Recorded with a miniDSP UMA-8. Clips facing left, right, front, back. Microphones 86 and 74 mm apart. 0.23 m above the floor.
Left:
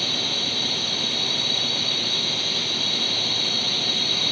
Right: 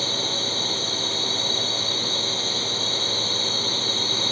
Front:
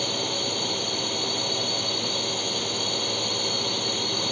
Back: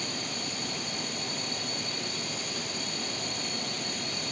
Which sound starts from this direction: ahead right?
A drone, at 0.0 s.